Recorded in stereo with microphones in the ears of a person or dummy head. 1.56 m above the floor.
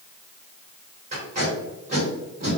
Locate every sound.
1.1 s tape being pulled: 30° right (ahead or behind), 1.4 m